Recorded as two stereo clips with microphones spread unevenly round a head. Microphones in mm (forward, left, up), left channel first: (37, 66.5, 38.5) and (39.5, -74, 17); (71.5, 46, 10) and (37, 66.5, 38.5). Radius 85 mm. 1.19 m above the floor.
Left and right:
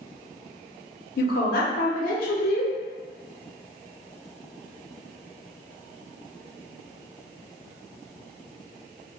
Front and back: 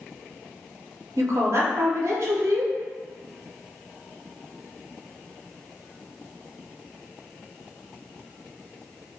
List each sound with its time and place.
1.2 s a woman speaking: 120° left, 0.7 m